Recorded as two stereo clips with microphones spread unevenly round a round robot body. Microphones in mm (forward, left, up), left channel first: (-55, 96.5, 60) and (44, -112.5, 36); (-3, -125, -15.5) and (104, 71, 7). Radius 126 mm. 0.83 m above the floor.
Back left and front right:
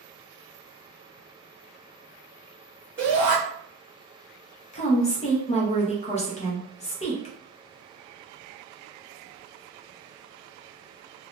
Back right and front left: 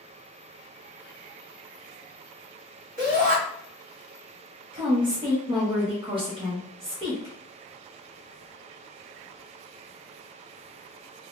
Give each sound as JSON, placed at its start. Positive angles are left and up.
{"t": 3.0, "sound": "a shout", "azimuth_deg": 10, "distance_m": 1.3}
{"t": 4.7, "sound": "a woman speaking", "azimuth_deg": 105, "distance_m": 0.7}